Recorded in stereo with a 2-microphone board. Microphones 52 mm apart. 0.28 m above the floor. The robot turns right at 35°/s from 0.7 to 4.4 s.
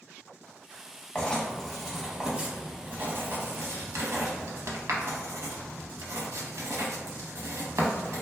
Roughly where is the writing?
Left.